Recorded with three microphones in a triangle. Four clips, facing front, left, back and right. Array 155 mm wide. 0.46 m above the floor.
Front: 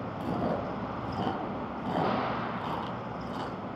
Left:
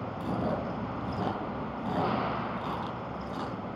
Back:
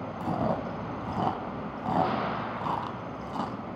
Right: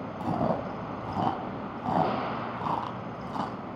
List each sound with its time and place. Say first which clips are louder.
0.2 s chewing: right 4 dB, back 2 dB; 120° right, 2 m